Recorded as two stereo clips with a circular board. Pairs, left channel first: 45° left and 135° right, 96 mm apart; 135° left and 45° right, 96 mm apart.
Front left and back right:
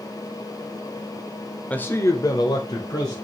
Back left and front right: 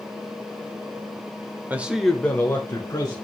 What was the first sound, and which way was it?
A man speaking, 10° right.